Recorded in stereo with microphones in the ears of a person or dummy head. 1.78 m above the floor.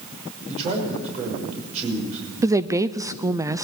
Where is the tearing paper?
No tearing paper in this recording.